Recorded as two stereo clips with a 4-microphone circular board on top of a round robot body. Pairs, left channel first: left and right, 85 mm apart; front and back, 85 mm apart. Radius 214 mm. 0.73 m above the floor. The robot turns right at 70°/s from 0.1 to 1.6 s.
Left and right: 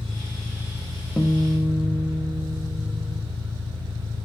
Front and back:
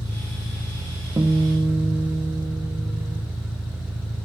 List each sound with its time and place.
0.0 s an engine running: 150° left, 2.5 m; by 4.3 s 105° right, 2.5 m
1.2 s a guitar: 165° left, 1.3 m; by 3.2 s 165° right, 1.3 m